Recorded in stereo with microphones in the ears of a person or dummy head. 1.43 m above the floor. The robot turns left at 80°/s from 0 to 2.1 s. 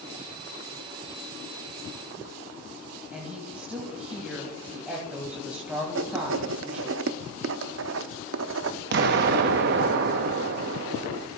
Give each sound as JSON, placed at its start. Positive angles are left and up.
{"t": 3.1, "sound": "a woman speaking", "side_deg": 0, "distance_m": 1.9}
{"t": 6.0, "sound": "writing", "side_deg": -65, "distance_m": 0.6}
{"t": 8.9, "sound": "an explosion", "side_deg": -60, "distance_m": 0.9}